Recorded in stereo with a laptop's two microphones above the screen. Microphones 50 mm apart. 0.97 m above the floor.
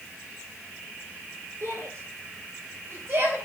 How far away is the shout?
About 3.5 m.